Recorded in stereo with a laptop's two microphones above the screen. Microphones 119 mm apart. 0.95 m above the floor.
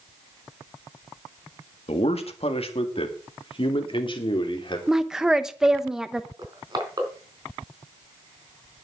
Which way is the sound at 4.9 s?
5° right (ahead or behind).